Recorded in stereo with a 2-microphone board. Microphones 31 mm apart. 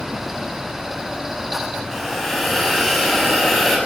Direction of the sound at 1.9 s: 10° left (ahead or behind).